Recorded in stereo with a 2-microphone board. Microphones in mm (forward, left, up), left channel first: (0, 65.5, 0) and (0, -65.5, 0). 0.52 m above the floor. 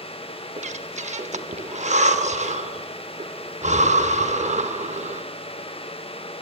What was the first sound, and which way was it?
Breathing, 60° right (ahead or behind).